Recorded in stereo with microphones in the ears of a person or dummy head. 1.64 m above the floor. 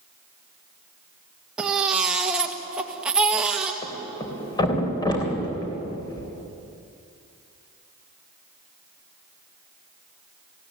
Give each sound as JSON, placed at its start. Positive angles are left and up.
{"t": 1.6, "sound": "a baby crying", "side_deg": -10, "distance_m": 1.7}
{"t": 3.8, "sound": "a thud", "side_deg": 20, "distance_m": 3.5}